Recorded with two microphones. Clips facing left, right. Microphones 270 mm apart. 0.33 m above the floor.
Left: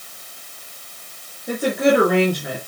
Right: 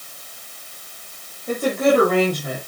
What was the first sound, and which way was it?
A woman speaking, 10° left (ahead or behind).